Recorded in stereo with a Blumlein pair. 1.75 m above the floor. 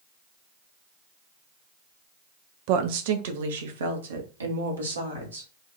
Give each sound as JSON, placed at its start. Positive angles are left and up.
{"t": 2.7, "sound": "a woman speaking", "azimuth_deg": -45, "distance_m": 0.8}